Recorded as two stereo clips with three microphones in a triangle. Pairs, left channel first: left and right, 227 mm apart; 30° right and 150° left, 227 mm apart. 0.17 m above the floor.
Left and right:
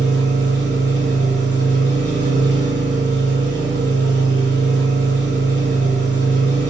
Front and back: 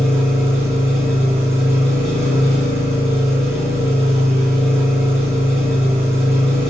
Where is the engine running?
130° right, 3.5 m.